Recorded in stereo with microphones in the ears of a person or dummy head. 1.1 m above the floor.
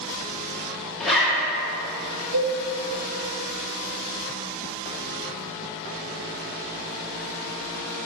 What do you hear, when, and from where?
1.0 s a zipper: centre (ahead or behind), 1.9 m
2.3 s a cowbell: 70° right (ahead or behind), 2.0 m